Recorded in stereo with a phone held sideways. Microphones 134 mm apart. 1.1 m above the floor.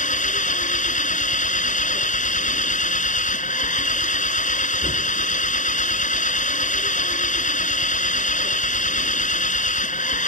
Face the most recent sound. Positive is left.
turn(degrees=70)  # may be behind; listen again after turning